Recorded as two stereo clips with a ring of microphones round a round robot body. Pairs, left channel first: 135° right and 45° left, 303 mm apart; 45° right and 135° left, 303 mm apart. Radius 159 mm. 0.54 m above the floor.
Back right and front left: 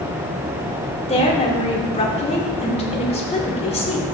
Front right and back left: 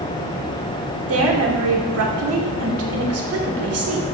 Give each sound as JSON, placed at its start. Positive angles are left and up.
{"t": 1.1, "sound": "a woman speaking", "azimuth_deg": 160, "distance_m": 2.0}